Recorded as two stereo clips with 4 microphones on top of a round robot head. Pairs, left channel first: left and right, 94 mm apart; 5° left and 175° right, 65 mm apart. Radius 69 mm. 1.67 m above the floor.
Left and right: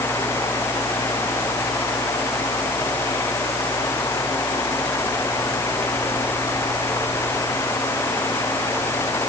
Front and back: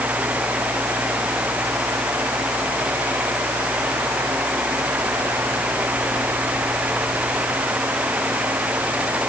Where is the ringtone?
No ringtone in this recording.